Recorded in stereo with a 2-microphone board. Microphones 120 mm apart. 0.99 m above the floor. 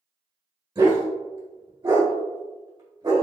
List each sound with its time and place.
0.8 s a dog barking: 40° right (ahead or behind), 1.4 m